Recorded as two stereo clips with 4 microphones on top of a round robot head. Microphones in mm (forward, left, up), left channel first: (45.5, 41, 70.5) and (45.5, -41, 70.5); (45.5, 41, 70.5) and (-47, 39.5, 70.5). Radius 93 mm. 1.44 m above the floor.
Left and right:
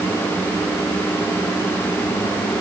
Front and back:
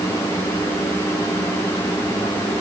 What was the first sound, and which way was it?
Only background noise.